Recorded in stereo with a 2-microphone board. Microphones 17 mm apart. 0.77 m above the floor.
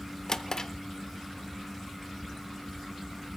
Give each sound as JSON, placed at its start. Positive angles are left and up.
{"t": 0.3, "sound": "a drawer", "side_deg": 45, "distance_m": 0.7}